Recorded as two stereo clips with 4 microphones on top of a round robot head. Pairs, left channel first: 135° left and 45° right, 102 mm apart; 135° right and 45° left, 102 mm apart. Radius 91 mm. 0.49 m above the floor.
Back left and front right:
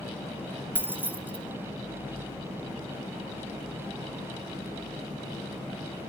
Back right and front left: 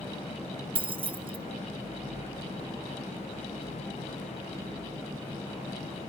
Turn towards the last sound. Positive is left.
turn(degrees=25)